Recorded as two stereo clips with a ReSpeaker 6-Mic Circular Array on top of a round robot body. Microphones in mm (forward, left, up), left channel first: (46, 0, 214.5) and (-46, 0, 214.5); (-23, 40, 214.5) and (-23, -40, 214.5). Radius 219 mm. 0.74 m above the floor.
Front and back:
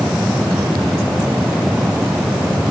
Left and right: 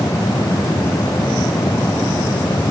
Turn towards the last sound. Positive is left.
No sound to turn to.